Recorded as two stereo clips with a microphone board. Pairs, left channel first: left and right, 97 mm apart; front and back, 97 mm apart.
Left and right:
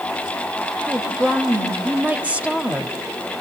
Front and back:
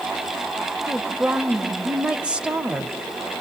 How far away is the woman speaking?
About 1.2 m.